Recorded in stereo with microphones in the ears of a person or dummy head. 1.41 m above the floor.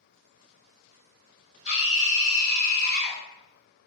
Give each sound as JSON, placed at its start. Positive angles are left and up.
{"t": 1.6, "sound": "a scream", "side_deg": 80, "distance_m": 1.9}